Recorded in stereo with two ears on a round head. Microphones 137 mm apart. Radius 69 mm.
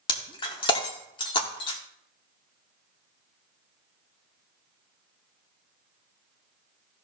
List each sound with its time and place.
0.1 s breaking glass: 30° left (ahead or behind), 1.7 m